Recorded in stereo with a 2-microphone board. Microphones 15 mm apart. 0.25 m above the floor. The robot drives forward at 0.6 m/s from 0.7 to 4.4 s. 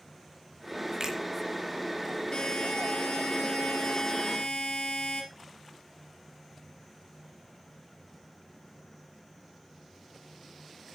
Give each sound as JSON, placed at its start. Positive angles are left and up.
{"t": 1.0, "sound": "a finger snap", "side_deg": -50, "distance_m": 3.5}
{"t": 2.3, "sound": "a buzzer", "side_deg": 75, "distance_m": 3.0}